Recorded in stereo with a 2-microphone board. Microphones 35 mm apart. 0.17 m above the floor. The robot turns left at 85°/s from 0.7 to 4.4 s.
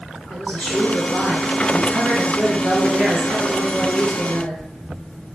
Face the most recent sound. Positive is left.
turn(degrees=85)